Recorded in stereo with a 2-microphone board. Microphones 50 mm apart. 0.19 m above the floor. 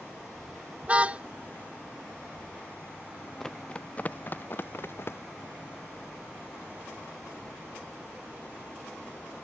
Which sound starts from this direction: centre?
Running footsteps, at 3.4 s.